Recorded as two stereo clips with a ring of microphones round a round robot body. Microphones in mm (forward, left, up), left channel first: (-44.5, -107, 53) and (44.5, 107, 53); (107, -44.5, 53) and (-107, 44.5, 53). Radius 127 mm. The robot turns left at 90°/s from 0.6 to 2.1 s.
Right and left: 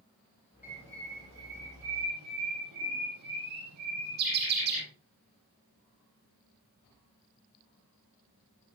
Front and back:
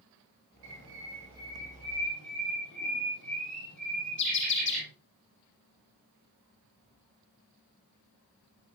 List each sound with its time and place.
0.6 s a bird: 150° left, 9 m; by 4.8 s 20° left, 9 m